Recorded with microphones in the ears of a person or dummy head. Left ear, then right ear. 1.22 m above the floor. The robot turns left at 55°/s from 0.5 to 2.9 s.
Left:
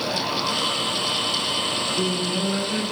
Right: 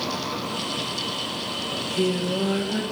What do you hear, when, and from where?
1.7 s singing: 115° right, 1.2 m; by 2.8 s 175° right, 1.2 m